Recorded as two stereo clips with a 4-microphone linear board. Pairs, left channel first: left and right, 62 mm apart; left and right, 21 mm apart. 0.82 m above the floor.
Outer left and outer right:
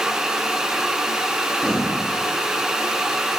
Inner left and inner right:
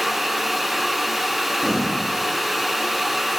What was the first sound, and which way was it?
Breathing, 10° left (ahead or behind).